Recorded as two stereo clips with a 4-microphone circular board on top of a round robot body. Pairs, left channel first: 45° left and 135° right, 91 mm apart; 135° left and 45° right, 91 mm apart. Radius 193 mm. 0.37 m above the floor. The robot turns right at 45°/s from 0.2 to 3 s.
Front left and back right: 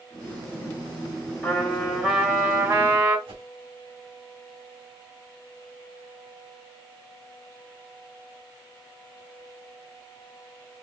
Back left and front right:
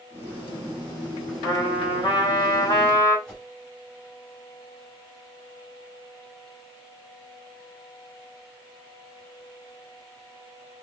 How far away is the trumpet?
About 2.5 m.